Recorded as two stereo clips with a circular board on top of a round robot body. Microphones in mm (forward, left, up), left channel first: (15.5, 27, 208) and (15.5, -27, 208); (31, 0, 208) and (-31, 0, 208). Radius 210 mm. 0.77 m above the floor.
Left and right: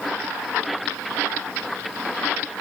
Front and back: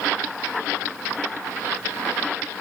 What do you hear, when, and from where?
Only background noise.